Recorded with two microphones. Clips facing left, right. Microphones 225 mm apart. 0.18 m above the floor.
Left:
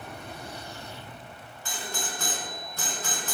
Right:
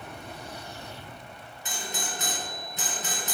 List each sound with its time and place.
1.6 s a doorbell: 20° right (ahead or behind), 3 m